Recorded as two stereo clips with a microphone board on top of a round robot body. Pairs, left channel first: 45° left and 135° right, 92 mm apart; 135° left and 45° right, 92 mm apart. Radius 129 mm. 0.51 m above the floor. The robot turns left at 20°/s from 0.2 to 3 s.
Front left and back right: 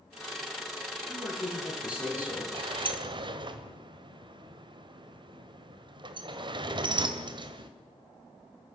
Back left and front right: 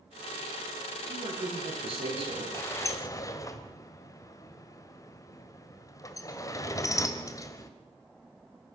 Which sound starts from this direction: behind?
A sliding door, at 2.5 s.